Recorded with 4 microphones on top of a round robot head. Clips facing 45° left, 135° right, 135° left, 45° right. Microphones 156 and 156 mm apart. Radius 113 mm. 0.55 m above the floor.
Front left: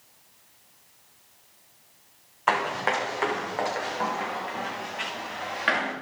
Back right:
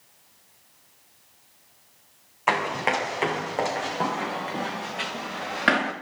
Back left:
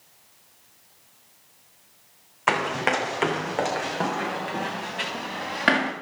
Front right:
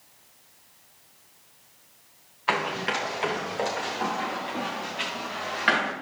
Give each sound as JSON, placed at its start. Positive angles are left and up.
{"t": 2.5, "sound": "running footsteps", "azimuth_deg": 145, "distance_m": 2.0}